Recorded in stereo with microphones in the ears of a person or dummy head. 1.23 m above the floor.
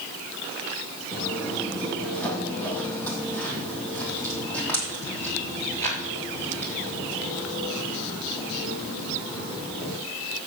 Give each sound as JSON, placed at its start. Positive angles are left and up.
{"t": 1.1, "sound": "footsteps", "side_deg": 5, "distance_m": 1.7}